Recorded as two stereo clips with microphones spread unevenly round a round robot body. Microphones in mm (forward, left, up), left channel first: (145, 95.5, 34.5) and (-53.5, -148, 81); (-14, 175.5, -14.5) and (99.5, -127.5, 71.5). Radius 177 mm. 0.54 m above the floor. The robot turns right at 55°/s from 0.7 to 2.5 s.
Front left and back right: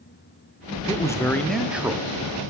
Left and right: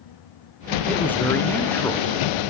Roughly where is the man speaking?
Left.